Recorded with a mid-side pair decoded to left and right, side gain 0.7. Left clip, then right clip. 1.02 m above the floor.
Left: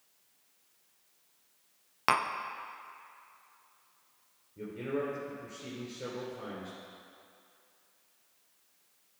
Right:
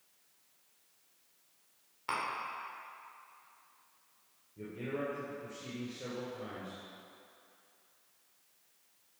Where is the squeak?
No squeak in this recording.